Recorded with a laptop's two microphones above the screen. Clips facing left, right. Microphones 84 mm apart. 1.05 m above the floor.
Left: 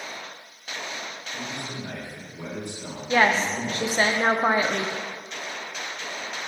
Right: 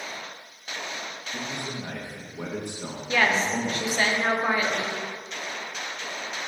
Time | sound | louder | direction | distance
1.3 | a man speaking | right 1 dB | 65° right (ahead or behind) | 1.3 m
3.1 | a woman speaking | left 3 dB | 30° left (ahead or behind) | 0.5 m